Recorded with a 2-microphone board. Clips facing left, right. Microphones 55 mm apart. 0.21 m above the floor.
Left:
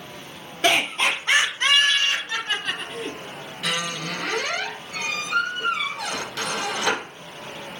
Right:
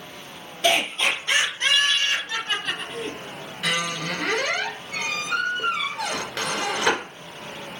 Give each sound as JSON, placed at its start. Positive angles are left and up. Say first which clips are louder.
{"t": 0.6, "sound": "laughter", "louder": "left 1 dB", "side_deg": 50, "distance_m": 1.9}
{"t": 3.6, "sound": "a squeak", "louder": "right 2 dB", "side_deg": -60, "distance_m": 2.0}